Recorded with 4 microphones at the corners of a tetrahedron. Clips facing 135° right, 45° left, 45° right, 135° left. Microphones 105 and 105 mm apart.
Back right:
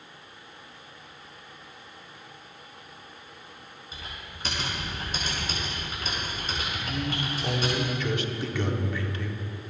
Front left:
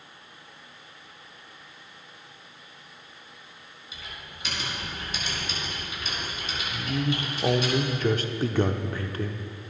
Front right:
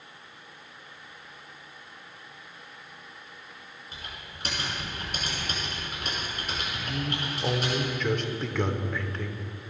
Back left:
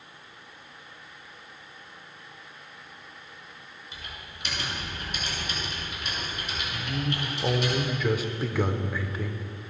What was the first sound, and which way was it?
Typing on a keyboard, 90° right.